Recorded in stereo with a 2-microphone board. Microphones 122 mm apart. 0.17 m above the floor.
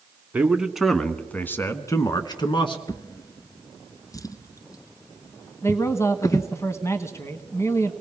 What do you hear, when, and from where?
0.3 s a man speaking: 10° right (ahead or behind), 1.3 m; by 2.8 s 45° left (ahead or behind), 1.5 m
2.9 s a drawer: 30° left (ahead or behind), 0.6 m
5.6 s a man speaking: 25° left (ahead or behind), 1.1 m